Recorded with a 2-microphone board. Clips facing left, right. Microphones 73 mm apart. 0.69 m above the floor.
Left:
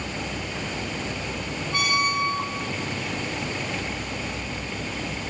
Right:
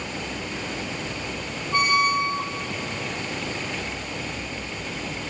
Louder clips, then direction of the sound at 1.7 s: Right 4 dB; 35° right (ahead or behind).